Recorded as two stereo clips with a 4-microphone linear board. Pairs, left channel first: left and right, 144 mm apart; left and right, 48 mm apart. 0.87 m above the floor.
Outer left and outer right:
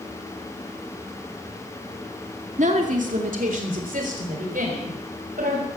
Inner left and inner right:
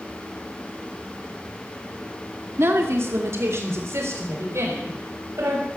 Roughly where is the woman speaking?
Right.